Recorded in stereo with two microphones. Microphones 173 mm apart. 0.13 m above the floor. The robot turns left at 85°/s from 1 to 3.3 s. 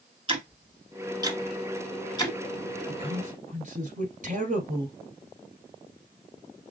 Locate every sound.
0.3 s ticking: 30° right (ahead or behind), 1.7 m; by 2.4 s 25° left (ahead or behind), 1.7 m
2.9 s a man speaking: 25° right, 1.9 m; by 5.0 s 60° right, 1.9 m